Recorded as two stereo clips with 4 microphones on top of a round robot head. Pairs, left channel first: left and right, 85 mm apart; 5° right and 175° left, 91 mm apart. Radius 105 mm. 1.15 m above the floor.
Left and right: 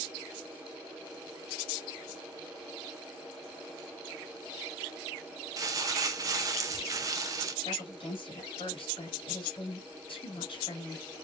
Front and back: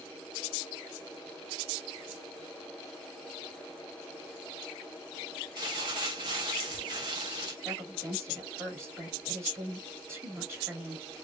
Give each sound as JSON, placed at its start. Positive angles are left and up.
{"t": 5.6, "sound": "crumpling", "azimuth_deg": -135, "distance_m": 0.6}
{"t": 7.7, "sound": "a woman speaking", "azimuth_deg": 110, "distance_m": 2.5}